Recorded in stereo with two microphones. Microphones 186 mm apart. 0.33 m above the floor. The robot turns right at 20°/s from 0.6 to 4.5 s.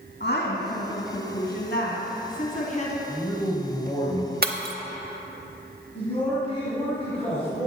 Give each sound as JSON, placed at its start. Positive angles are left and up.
{"t": 0.2, "sound": "a woman speaking", "azimuth_deg": 90, "distance_m": 2.5}
{"t": 3.1, "sound": "a man speaking", "side_deg": 15, "distance_m": 2.0}
{"t": 4.4, "sound": "breaking glass", "side_deg": -55, "distance_m": 0.9}
{"t": 6.0, "sound": "a man speaking", "side_deg": 30, "distance_m": 2.5}